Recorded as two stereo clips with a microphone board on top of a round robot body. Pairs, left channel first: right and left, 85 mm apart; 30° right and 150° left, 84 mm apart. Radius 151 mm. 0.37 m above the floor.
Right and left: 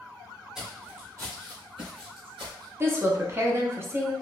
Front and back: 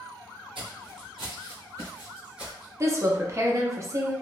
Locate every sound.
0.6 s footsteps: 175° left, 0.8 m; by 2.7 s 65° left, 1.0 m
2.8 s a woman speaking: 125° left, 1.0 m